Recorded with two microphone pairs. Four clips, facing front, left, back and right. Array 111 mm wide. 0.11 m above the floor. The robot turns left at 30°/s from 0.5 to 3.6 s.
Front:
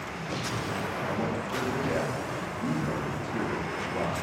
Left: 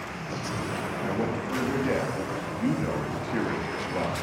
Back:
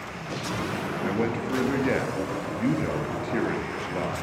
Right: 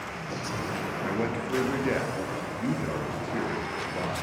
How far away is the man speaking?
About 1.4 m.